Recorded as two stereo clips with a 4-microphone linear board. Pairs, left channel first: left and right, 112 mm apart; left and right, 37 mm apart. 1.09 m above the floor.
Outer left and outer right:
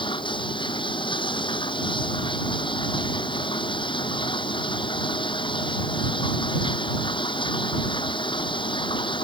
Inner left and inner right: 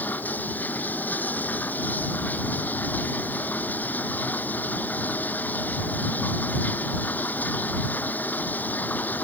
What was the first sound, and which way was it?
Running water, 45° left (ahead or behind).